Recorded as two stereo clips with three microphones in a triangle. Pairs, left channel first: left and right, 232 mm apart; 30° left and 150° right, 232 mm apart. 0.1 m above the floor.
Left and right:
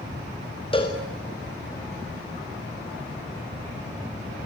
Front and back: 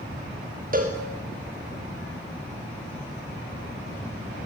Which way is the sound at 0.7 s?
160° left.